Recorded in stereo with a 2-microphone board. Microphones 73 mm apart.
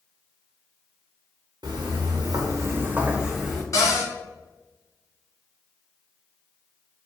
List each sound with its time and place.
1.6 s footsteps: 85° right, 0.9 m; by 3.6 s 5° left (ahead or behind), 0.8 m
3.7 s a cupboard door: 45° left (ahead or behind), 1.5 m